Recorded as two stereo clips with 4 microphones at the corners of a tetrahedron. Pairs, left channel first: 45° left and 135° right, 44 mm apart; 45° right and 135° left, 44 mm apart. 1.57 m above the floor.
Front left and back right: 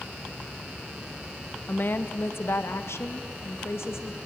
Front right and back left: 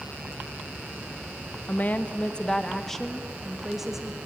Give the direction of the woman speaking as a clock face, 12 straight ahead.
12 o'clock.